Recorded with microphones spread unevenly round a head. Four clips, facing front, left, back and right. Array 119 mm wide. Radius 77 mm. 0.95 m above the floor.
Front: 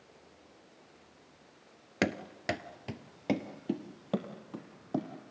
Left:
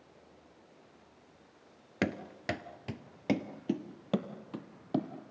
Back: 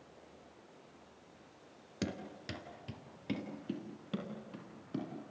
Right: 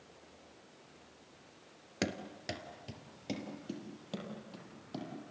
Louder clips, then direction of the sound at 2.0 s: Left 4 dB, front 9 dB; 25° left.